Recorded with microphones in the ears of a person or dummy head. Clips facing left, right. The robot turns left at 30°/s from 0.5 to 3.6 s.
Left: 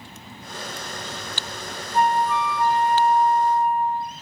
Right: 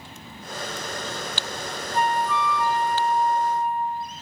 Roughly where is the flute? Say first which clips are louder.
Left 3 dB; ahead right.